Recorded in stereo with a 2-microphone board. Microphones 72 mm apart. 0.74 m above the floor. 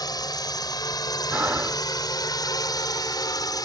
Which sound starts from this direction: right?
Breathing, at 1.3 s.